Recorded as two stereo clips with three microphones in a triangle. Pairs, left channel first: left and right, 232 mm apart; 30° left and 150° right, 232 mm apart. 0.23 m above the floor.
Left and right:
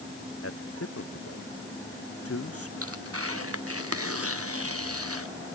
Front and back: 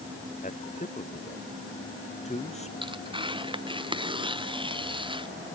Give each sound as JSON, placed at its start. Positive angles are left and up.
{"t": 0.4, "sound": "a man speaking", "azimuth_deg": 85}
{"t": 2.8, "sound": "tearing paper", "azimuth_deg": -80}